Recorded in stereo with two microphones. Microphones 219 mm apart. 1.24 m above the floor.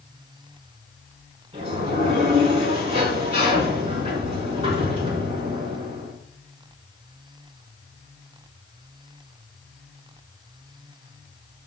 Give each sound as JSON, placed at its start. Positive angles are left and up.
{"t": 1.5, "sound": "a sliding door", "side_deg": -30, "distance_m": 5.0}